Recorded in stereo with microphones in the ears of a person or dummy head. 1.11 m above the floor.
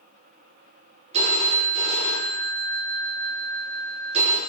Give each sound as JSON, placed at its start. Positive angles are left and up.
{"t": 1.1, "sound": "a phone ringing", "side_deg": -35, "distance_m": 0.7}